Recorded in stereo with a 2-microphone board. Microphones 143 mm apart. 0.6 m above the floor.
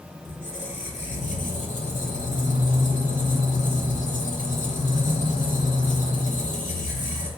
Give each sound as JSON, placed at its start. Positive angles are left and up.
{"t": 0.2, "sound": "a squeak", "side_deg": 55, "distance_m": 0.8}